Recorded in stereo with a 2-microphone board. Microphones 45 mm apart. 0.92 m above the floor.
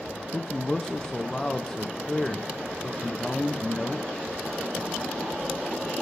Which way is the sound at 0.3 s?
15° left (ahead or behind).